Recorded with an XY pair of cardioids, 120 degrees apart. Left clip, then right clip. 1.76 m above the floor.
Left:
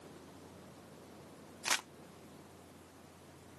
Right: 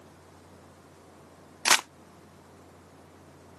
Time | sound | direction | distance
0.0 | a fan | 35° right | ?
1.6 | crumpling | 65° right | ?